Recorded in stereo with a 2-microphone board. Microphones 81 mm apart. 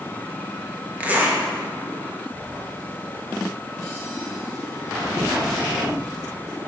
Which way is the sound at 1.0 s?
20° right (ahead or behind).